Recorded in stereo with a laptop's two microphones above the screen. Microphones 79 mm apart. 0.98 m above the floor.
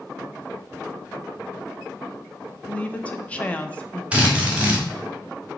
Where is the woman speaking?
15° left (ahead or behind), 0.8 m.